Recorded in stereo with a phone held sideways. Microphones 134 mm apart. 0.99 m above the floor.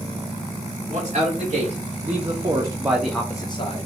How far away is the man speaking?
About 1.9 m.